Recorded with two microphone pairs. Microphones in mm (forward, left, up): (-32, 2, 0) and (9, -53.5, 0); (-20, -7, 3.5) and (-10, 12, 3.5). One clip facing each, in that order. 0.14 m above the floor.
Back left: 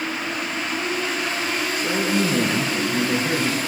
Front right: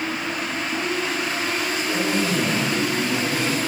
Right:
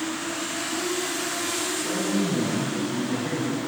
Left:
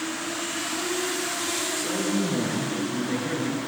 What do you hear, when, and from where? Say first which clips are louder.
1.8 s a man speaking: back left 2 dB, right 1 dB; 125° left, 2.5 m